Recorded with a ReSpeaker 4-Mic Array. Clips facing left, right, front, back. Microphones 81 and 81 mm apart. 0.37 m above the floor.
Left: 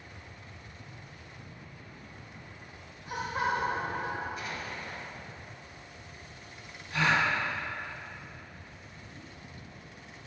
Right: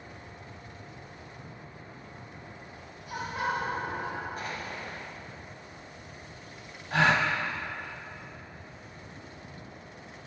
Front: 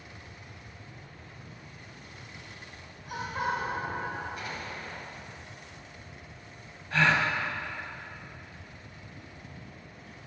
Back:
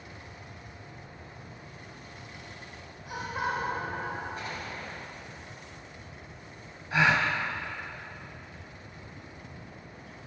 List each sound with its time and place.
3.1 s laughter: 110° left, 1.4 m
4.4 s an explosion: 130° right, 1.5 m
6.9 s a gasp: 105° right, 0.8 m